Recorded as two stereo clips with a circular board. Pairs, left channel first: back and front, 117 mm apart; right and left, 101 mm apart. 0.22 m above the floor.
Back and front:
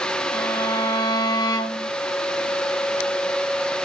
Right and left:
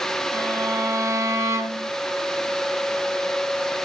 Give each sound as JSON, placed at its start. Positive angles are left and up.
{"t": 0.3, "sound": "a violin", "azimuth_deg": 135, "distance_m": 2.0}